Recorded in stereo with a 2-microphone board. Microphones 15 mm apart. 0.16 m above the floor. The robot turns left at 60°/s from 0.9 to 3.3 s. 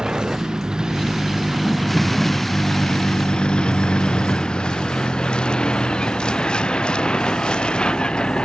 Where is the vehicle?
125° right; by 8.5 s 95° left.